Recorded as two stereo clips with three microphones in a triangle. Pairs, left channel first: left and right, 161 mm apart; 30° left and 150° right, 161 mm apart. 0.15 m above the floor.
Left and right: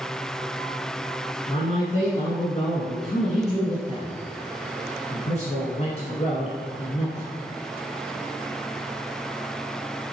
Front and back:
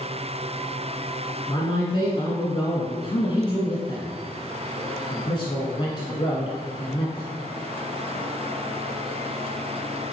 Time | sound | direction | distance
1.5 | a man speaking | 75° left | 1.5 m